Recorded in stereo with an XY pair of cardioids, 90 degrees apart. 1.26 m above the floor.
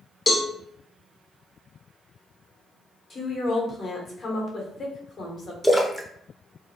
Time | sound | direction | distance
0.3 | a cowbell | 30° left | 0.7 m
3.1 | a woman speaking | 50° left | 1.0 m
5.6 | a splash | straight ahead | 0.5 m